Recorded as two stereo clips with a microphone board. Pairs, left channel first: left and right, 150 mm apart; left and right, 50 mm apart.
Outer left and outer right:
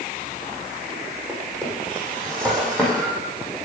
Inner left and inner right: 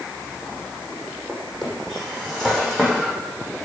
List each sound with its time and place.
1.3 s a drawer: 5° left (ahead or behind), 5.5 m